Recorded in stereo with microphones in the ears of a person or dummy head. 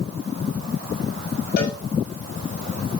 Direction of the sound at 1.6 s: 55° left (ahead or behind).